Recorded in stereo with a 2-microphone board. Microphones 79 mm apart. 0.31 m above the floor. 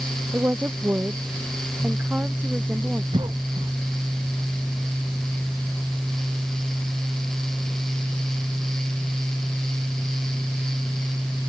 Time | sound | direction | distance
0.3 | a woman speaking | 25° right (ahead or behind) | ?
3.1 | a cough | 80° right | ?